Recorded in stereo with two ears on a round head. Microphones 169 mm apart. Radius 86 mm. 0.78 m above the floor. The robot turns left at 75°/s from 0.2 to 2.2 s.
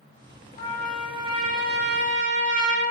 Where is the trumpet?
30° left, 1.6 m; by 2.9 s 95° right, 1.6 m.